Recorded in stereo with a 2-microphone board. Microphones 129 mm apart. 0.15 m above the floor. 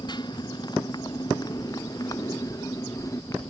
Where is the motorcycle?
35° left (ahead or behind); by 3.5 s 25° left (ahead or behind).